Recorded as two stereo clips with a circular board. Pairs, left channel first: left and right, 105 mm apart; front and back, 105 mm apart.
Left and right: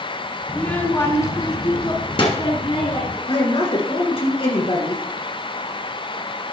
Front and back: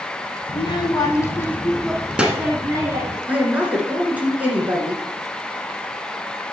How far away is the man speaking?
About 2 m.